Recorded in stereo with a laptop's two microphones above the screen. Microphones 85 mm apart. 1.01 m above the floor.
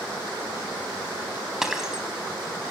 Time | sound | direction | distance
1.6 | breaking glass | 5° right (ahead or behind) | 4.5 m